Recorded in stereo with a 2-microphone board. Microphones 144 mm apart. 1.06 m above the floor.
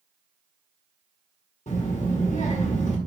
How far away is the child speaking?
About 0.8 m.